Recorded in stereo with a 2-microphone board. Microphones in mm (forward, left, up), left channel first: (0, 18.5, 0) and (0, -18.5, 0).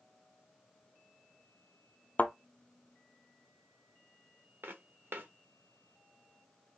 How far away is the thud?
About 0.5 m.